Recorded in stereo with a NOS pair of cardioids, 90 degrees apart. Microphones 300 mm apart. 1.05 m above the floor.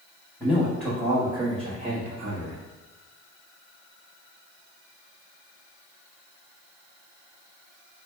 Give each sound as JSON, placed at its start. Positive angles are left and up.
{"t": 0.4, "sound": "a man speaking", "azimuth_deg": 10, "distance_m": 1.3}